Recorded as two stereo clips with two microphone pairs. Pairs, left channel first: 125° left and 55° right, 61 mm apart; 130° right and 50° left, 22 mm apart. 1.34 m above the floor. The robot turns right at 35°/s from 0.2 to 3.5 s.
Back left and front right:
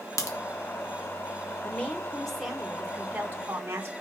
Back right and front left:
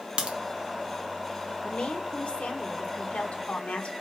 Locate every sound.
0.2 s a crack: 95° left, 1.4 m; by 0.4 s 100° left, 1.4 m
1.6 s a woman speaking: 170° right, 1.9 m; by 3.9 s 105° right, 1.9 m